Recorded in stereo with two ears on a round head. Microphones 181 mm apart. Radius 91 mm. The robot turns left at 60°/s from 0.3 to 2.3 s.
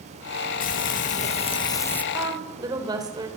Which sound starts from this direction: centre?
A woman speaking, at 2.1 s.